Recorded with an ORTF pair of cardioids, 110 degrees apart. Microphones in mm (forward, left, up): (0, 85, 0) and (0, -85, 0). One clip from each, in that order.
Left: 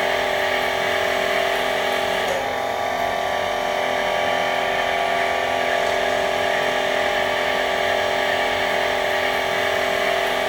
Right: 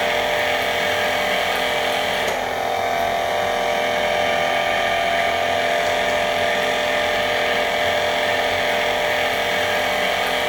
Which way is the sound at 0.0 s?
25° right.